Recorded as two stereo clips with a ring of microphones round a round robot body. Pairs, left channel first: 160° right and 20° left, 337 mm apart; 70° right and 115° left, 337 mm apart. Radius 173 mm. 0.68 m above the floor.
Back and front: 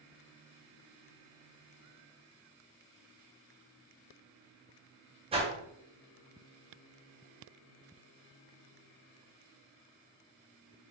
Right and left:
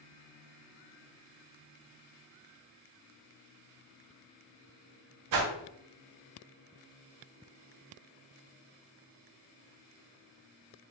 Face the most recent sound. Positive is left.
turn(degrees=95)